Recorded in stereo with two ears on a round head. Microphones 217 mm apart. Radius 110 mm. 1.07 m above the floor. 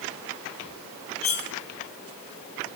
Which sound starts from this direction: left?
Cutlery clinking, at 1.2 s.